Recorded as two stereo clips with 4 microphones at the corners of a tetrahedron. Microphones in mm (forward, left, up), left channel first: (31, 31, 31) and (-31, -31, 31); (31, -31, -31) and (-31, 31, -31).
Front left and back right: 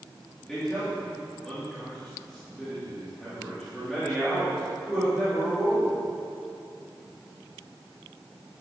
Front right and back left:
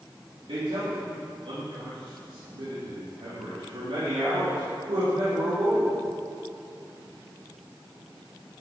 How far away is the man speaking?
About 2.5 m.